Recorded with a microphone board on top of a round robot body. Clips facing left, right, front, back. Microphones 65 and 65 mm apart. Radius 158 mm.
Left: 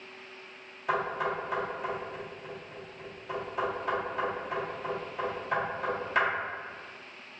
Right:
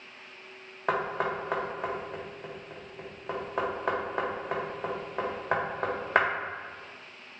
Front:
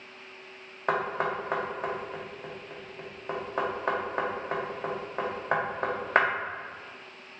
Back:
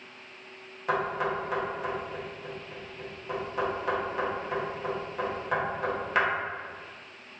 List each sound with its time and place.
0.9 s knocking: 50° right, 0.7 m